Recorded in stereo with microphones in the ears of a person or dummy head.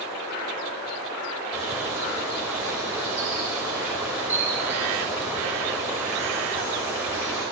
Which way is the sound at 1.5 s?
10° right (ahead or behind).